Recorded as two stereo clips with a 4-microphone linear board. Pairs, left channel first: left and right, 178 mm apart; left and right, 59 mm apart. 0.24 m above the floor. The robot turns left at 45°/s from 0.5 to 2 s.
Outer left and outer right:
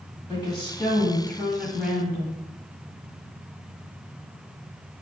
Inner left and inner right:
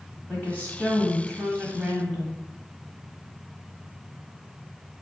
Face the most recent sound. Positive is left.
turn(degrees=-10)